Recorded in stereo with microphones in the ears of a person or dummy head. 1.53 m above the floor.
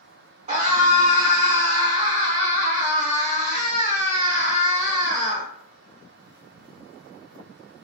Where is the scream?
30° right (ahead or behind), 3 m.